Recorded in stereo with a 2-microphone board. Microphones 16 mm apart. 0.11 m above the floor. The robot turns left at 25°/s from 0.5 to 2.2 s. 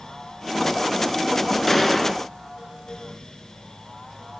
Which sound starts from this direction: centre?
A gunshot, at 1.7 s.